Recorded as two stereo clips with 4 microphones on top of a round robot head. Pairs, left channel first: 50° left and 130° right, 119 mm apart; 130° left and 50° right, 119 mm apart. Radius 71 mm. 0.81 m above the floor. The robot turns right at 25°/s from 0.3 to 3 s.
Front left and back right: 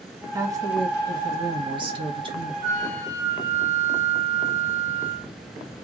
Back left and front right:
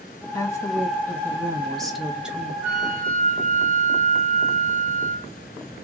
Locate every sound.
0.3 s a woman speaking: straight behind, 1.0 m; by 2.5 s 125° right, 1.0 m
2.6 s a flute: 80° right, 1.8 m; by 5.3 s 70° right, 1.8 m